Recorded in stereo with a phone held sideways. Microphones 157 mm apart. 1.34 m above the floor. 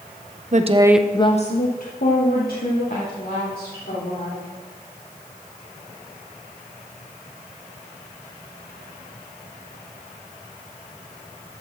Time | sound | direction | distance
0.5 | a woman speaking | 50° right (ahead or behind) | 0.7 m